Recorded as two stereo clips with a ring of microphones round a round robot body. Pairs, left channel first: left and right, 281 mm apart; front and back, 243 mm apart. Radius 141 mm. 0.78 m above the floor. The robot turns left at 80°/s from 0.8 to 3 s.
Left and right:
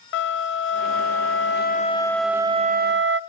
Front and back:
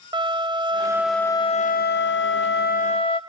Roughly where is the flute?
Behind left.